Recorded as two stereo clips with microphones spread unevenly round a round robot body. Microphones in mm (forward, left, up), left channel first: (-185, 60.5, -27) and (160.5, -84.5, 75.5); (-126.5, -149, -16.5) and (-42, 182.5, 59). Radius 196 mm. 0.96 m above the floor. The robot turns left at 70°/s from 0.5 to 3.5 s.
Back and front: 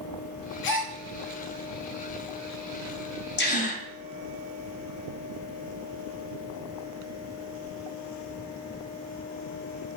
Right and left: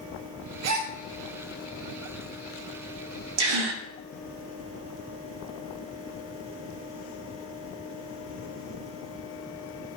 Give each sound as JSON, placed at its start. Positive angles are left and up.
{"t": 0.6, "sound": "a gasp", "azimuth_deg": 125, "distance_m": 1.2}
{"t": 3.4, "sound": "a gasp", "azimuth_deg": 95, "distance_m": 1.2}